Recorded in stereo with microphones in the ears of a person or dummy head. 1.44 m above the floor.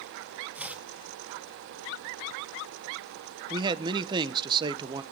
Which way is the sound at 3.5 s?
25° right (ahead or behind).